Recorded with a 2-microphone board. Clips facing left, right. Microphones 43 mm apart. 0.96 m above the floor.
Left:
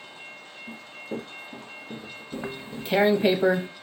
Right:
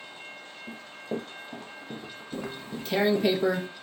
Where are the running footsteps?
40° right (ahead or behind), 1.4 m; by 3.3 s 60° right (ahead or behind), 4 m.